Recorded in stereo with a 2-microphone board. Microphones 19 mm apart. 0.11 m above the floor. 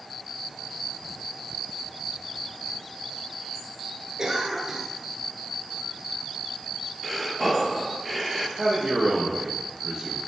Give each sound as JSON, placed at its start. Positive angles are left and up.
{"t": 4.2, "sound": "a cough", "side_deg": -35, "distance_m": 1.7}
{"t": 7.0, "sound": "breathing", "side_deg": 0, "distance_m": 0.7}
{"t": 8.6, "sound": "a man speaking", "side_deg": -20, "distance_m": 2.5}